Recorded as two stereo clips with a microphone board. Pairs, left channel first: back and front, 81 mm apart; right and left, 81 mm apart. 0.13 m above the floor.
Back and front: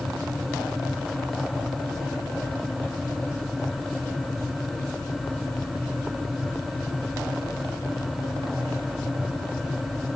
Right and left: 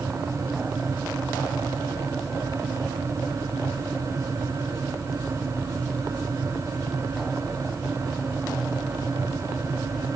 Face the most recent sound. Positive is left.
No sound to turn to.